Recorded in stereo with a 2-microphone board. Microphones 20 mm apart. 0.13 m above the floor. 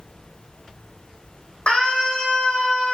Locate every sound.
1.7 s a scream: 80° left, 5 m; by 2.9 s 70° left (ahead or behind), 4 m